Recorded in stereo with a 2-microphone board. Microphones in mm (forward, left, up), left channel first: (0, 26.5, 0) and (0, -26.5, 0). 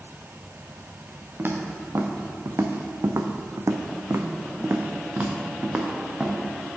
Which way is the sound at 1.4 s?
45° right (ahead or behind).